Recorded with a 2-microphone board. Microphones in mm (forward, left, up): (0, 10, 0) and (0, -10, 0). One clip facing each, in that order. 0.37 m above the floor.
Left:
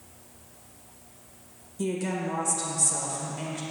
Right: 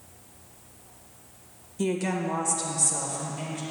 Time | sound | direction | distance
1.8 | a woman speaking | 25° right (ahead or behind) | 1.6 m